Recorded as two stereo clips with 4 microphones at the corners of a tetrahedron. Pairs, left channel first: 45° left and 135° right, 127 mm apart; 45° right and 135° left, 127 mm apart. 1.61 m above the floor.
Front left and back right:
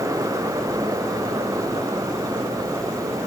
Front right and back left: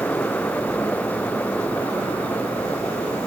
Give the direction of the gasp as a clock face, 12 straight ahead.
No gasp in this recording.